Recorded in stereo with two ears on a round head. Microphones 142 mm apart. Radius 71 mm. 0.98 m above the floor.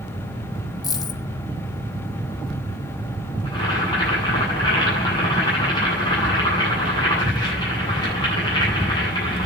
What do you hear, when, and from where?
0.8 s a dropped coin: 25° left (ahead or behind), 1.1 m
3.5 s boiling: 25° left (ahead or behind), 9 m